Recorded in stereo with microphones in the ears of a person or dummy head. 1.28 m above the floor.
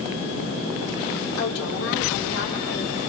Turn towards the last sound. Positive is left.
turn(degrees=65)  # may be behind; listen again after turning